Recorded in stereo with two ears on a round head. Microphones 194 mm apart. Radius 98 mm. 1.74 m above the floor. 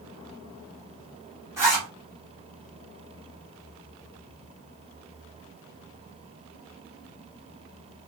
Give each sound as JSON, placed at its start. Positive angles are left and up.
{"t": 1.6, "sound": "a zipper", "side_deg": -10, "distance_m": 3.5}